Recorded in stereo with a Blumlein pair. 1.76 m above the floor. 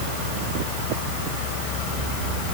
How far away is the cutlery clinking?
I don't hear cutlery clinking.